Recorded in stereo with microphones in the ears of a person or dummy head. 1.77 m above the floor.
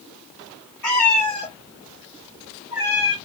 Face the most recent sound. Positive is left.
turn(degrees=-20)  # may be behind; listen again after turning